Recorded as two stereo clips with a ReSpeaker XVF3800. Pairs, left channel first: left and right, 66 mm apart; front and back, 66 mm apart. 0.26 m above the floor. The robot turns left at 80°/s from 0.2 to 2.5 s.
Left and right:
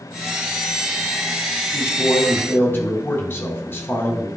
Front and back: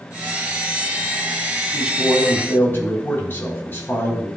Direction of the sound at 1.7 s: 110° left.